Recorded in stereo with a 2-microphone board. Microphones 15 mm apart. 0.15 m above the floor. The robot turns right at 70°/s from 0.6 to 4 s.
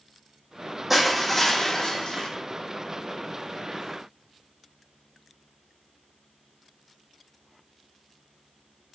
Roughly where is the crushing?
Ahead.